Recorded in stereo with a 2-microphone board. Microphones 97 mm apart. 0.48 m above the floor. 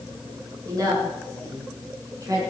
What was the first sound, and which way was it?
A woman speaking, 35° right (ahead or behind).